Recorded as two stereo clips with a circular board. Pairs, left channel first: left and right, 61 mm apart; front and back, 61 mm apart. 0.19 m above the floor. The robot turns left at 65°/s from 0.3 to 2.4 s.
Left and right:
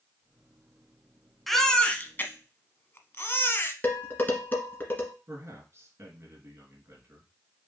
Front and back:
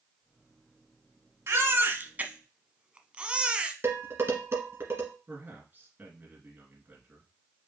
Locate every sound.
1.5 s a baby crying: straight behind, 0.8 m; by 3.7 s 115° left, 0.8 m
3.8 s dishes clattering: 145° left, 1.5 m
5.3 s a man speaking: 125° right, 2.5 m